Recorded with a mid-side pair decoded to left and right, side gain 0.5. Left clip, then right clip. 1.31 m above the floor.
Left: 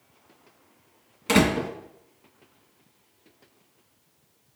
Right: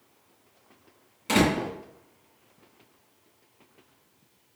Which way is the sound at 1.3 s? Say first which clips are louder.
Left 2 dB; 35° left.